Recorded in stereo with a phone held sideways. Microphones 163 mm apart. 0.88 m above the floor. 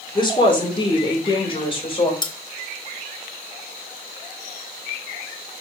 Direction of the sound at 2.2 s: 25° left (ahead or behind).